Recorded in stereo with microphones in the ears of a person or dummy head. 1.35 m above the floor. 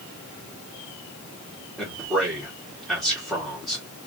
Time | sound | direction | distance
1.8 | a man speaking | centre (ahead or behind) | 1.6 m